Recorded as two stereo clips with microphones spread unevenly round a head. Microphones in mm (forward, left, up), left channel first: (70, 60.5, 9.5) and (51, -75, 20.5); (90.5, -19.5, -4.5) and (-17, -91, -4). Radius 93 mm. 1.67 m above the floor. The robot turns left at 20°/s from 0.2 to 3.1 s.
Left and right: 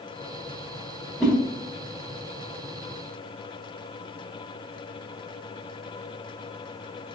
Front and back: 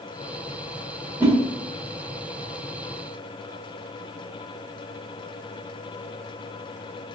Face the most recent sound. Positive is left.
turn(degrees=150)